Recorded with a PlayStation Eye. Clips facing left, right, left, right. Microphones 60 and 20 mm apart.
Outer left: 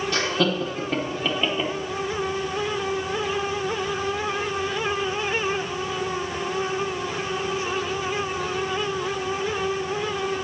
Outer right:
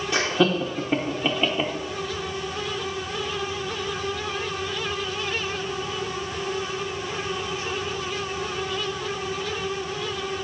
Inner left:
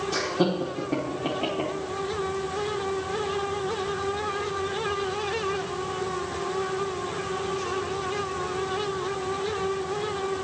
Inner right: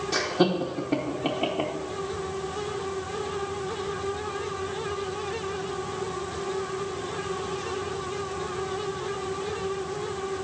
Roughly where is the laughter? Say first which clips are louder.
Outer right 3 dB, inner right 2 dB; centre.